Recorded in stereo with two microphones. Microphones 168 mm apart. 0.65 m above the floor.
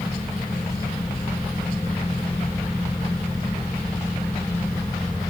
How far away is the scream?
I don't hear a scream.